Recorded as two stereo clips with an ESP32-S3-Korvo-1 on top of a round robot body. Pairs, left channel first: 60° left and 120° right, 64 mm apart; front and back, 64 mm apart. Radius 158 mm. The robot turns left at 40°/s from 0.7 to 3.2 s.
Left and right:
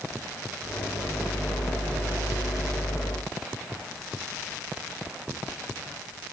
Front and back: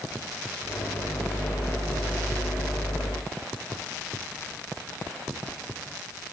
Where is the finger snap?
I don't hear a finger snap.